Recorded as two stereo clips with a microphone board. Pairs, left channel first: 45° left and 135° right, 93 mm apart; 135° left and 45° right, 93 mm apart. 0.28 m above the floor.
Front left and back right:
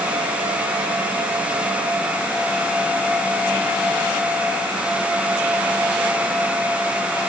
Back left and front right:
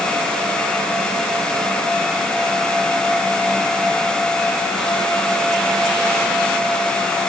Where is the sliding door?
I don't hear a sliding door.